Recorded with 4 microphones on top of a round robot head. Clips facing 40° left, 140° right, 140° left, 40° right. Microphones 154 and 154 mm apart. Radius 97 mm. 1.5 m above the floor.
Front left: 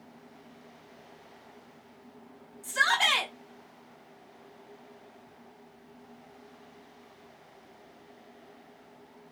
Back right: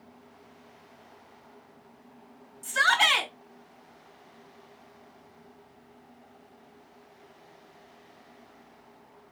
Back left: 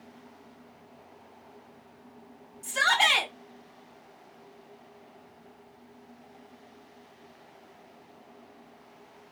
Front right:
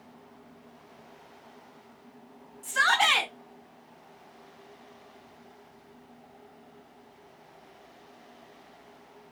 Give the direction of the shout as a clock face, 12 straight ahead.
5 o'clock.